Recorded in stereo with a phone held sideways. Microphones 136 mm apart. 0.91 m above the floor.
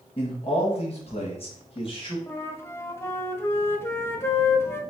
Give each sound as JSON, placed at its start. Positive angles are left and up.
{"t": 0.2, "sound": "a man speaking", "side_deg": 40, "distance_m": 1.4}
{"t": 2.3, "sound": "a flute", "side_deg": 20, "distance_m": 0.6}